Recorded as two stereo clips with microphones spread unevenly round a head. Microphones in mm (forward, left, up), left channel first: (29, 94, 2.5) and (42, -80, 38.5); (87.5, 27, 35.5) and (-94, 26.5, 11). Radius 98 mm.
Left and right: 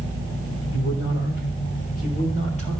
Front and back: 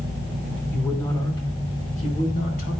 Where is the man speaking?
85° left, 3 m; by 2.8 s 40° left, 4 m.